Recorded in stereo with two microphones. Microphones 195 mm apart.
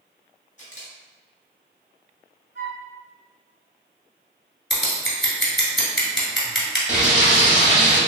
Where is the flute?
75° right (ahead or behind), 1.0 m.